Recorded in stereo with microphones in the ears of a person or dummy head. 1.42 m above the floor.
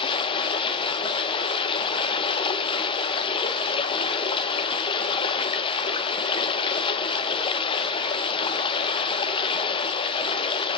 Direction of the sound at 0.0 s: 30° left (ahead or behind).